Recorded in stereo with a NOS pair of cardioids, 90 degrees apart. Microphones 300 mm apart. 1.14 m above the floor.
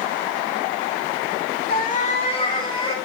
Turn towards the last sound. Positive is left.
turn(degrees=15)